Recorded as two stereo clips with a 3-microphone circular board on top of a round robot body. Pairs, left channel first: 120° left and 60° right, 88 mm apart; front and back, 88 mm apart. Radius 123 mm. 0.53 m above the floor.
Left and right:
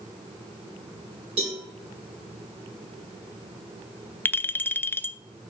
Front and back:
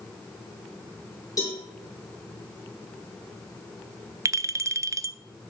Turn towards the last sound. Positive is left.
turn(degrees=165)